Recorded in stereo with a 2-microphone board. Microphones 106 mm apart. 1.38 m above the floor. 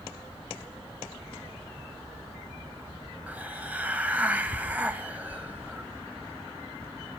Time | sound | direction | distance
3.3 | a hiss | 15° right (ahead or behind) | 1.6 m